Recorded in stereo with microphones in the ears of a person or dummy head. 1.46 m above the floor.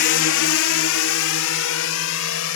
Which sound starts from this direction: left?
A drone, at 0.0 s.